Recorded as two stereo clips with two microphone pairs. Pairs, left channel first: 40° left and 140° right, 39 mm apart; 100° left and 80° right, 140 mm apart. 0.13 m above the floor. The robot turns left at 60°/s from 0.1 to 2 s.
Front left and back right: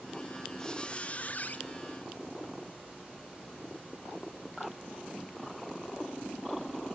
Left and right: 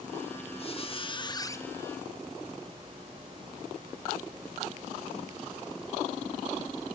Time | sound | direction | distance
0.6 | a squeak | 105° left | 0.8 m